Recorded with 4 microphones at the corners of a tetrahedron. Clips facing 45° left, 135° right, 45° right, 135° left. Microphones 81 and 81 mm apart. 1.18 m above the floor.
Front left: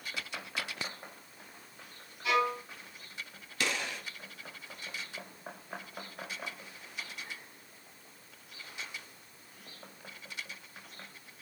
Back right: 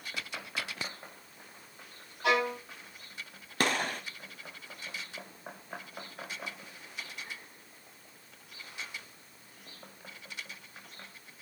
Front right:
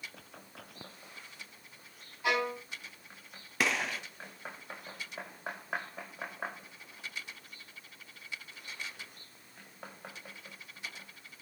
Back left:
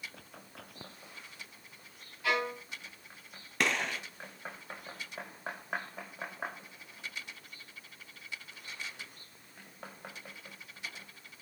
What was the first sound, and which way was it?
A violin, 115° right.